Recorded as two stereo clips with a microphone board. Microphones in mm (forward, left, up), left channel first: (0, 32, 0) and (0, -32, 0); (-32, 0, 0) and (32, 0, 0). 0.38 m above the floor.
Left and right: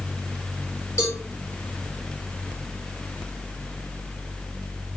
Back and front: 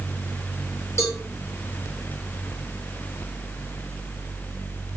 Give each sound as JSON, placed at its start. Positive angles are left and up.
{"t": 1.0, "sound": "a cowbell", "azimuth_deg": 135, "distance_m": 5.0}